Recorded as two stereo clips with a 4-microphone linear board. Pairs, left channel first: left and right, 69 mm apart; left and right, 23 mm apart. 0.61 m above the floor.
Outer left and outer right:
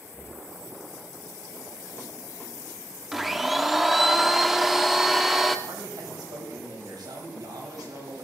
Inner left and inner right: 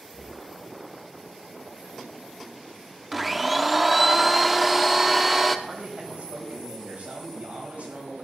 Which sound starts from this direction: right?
A man speaking, at 5.7 s.